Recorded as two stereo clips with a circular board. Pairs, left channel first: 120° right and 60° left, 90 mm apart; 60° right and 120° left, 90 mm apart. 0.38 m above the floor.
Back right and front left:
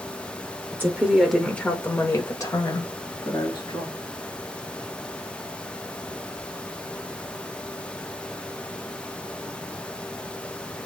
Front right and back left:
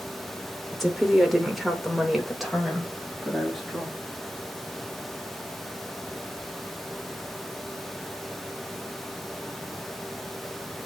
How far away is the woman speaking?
About 0.8 m.